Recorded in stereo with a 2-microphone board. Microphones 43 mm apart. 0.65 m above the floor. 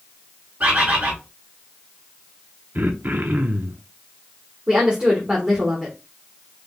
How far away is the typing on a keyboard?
No typing on a keyboard in this recording.